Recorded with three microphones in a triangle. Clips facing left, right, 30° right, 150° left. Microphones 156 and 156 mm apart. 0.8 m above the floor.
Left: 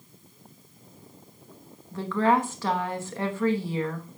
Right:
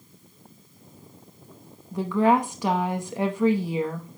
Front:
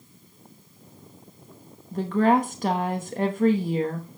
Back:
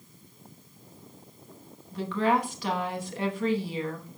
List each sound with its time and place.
1.9 s a woman speaking: 20° right, 1.0 m